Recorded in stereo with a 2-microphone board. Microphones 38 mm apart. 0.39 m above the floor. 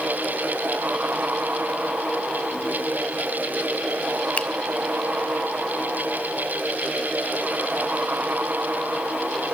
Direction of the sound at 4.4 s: 40° left (ahead or behind).